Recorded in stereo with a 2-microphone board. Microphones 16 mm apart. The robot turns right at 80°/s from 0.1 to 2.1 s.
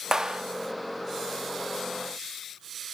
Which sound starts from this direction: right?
A clap, at 0.1 s.